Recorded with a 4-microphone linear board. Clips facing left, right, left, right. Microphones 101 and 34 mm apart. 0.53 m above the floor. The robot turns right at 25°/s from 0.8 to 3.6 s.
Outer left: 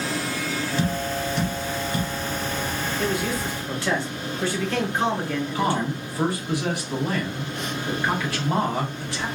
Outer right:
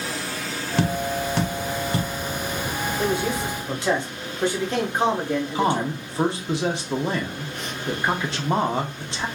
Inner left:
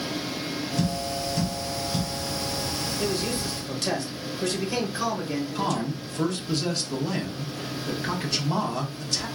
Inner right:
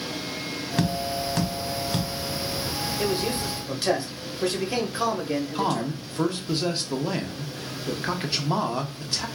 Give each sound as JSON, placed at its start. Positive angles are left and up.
{"t": 0.8, "sound": "tapping", "side_deg": -65, "distance_m": 0.8}
{"t": 3.0, "sound": "a man speaking", "side_deg": -30, "distance_m": 0.9}
{"t": 5.5, "sound": "a man speaking", "side_deg": -25, "distance_m": 0.7}